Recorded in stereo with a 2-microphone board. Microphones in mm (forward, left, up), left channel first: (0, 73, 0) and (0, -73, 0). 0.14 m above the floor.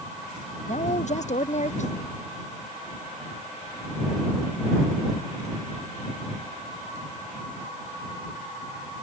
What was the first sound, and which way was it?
A woman speaking, 60° left (ahead or behind).